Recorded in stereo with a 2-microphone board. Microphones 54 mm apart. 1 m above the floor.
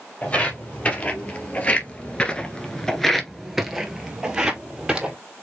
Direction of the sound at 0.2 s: 30° left (ahead or behind).